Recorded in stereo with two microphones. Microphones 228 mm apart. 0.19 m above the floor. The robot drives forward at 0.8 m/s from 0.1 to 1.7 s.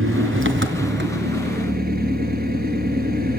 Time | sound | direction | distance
0.0 | an engine running | 60° right (ahead or behind) | 1.7 m